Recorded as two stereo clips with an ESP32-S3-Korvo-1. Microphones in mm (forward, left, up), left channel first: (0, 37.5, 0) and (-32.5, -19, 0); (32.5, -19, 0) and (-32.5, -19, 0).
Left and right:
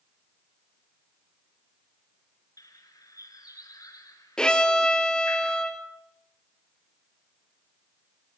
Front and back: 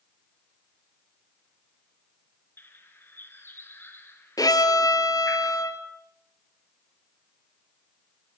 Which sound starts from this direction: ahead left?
A bird, at 2.6 s.